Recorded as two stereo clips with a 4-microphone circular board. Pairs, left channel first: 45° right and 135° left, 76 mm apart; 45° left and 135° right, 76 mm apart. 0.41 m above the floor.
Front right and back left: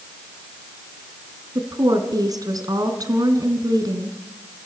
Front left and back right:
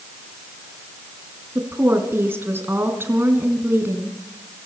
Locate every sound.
1.6 s a woman speaking: 165° left, 3.5 m